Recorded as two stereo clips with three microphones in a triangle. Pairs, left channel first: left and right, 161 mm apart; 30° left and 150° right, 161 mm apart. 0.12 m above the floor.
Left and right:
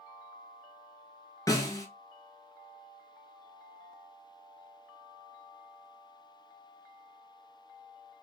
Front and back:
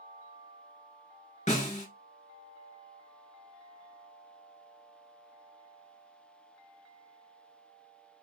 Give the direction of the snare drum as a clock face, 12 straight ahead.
11 o'clock.